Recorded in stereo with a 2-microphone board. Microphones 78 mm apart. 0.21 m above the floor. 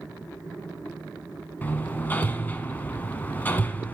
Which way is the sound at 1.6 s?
20° left (ahead or behind).